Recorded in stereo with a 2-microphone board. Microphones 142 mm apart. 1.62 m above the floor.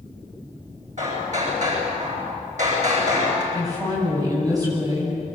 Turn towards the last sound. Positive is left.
turn(degrees=-25)  # may be behind; listen again after turning